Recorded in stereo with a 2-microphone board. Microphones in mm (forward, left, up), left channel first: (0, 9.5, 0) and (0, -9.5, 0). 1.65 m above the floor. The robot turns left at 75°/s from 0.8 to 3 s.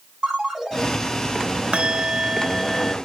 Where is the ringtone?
40° right (ahead or behind), 7 m; by 0.9 s 45° right (ahead or behind), 7 m.